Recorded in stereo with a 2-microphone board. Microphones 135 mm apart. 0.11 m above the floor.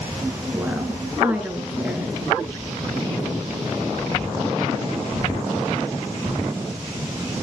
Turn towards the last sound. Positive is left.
turn(degrees=-10)  # may be behind; listen again after turning